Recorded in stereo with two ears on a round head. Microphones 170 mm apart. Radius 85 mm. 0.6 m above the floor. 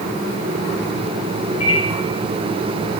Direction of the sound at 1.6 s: 30° left (ahead or behind).